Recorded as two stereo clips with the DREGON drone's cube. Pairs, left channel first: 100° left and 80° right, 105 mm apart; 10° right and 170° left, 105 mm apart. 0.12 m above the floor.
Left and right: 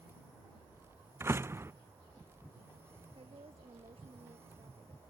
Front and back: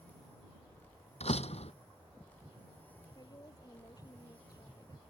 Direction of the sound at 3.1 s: 65° right.